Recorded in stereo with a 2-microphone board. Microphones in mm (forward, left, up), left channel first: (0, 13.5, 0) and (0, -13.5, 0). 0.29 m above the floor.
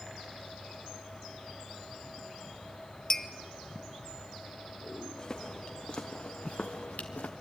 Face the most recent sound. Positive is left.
turn(degrees=80)